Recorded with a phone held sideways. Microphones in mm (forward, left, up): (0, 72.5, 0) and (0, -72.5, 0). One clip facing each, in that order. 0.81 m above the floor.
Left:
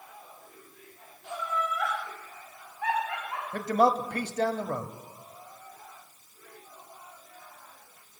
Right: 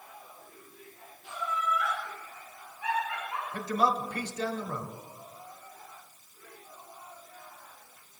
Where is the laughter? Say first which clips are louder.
Left 1 dB; 70° left (ahead or behind), 4.5 m.